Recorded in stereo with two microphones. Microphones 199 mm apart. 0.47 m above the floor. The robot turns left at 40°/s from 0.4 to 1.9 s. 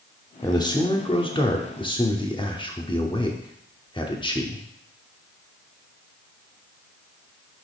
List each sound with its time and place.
0.4 s a man speaking: 20° left (ahead or behind), 0.8 m; by 4.6 s 25° left (ahead or behind), 0.8 m